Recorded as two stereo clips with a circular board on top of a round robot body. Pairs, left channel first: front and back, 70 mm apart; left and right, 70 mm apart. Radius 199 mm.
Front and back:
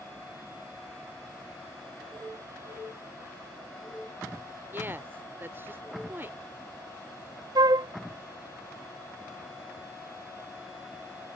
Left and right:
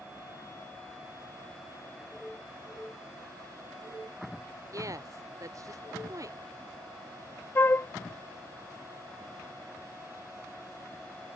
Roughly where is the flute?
Behind left.